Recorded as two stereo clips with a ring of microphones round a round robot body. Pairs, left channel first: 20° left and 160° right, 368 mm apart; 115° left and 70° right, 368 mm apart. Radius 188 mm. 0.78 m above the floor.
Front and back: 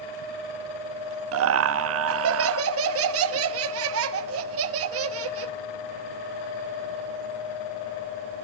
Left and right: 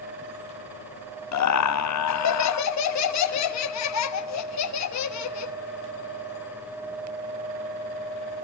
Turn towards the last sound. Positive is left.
turn(degrees=155)